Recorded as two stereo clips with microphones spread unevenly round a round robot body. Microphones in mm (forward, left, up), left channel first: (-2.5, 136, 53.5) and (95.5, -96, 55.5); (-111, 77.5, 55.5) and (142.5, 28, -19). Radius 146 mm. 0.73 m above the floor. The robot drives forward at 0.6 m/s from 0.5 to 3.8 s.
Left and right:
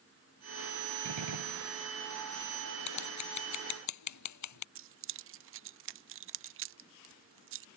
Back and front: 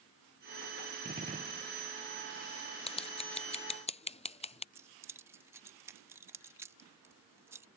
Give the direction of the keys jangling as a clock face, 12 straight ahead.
2 o'clock.